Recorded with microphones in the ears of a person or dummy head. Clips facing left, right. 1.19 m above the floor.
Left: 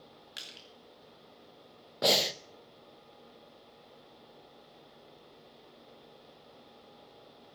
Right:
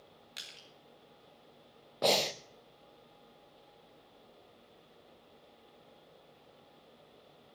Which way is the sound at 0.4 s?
5° left (ahead or behind).